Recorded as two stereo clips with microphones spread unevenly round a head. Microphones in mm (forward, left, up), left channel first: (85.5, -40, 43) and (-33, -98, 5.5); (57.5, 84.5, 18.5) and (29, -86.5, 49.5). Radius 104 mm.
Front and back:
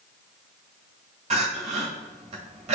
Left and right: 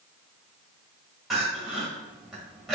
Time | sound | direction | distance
1.3 | crying | 170° right | 1.4 m